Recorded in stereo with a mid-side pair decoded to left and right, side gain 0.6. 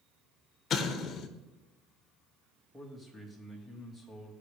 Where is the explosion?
45° left, 1.2 m.